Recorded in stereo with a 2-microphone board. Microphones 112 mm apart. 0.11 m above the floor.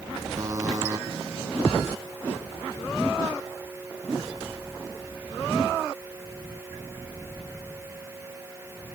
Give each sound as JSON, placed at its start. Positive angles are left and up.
{"t": 0.4, "sound": "a buzzer", "side_deg": -30}